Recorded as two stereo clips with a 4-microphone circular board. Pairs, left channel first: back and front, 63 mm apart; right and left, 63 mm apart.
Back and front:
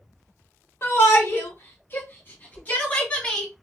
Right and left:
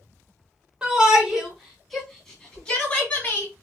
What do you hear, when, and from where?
0.8 s a shout: 160° left, 2 m; by 3.5 s 115° right, 1.7 m